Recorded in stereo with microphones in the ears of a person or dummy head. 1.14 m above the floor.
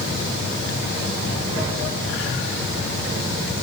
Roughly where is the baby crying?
I don't hear a baby crying.